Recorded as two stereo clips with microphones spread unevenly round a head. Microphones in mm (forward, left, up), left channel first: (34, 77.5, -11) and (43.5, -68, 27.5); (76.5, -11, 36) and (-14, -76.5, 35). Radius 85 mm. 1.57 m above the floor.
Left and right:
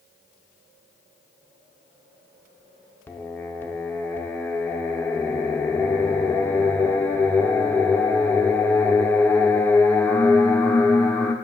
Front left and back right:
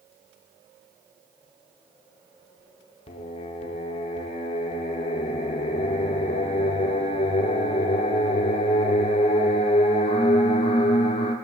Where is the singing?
10° left, 0.6 m.